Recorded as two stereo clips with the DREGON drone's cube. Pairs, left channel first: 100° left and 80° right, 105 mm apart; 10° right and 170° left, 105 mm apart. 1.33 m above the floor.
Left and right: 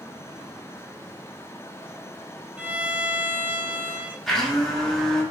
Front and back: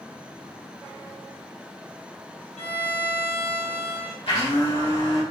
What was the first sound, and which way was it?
A violin, straight ahead.